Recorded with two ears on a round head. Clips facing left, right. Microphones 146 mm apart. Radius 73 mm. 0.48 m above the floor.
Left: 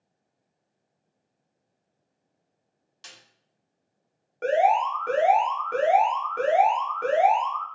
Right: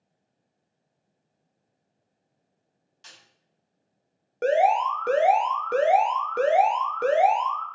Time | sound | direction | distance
3.0 | a snare drum | 65° left (ahead or behind) | 1.5 m
4.4 | an alarm | 45° right (ahead or behind) | 0.8 m